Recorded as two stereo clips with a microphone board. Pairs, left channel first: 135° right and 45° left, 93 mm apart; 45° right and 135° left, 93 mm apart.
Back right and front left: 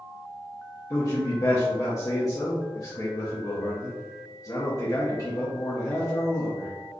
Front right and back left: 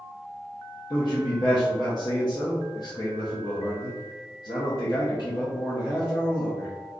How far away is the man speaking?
About 0.7 m.